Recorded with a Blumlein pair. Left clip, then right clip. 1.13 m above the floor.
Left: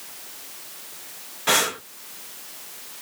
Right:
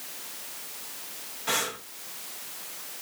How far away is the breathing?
About 0.7 m.